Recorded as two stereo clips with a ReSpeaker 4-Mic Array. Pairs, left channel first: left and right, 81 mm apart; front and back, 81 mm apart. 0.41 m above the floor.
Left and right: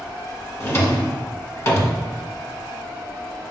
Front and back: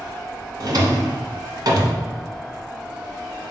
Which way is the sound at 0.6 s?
145° left.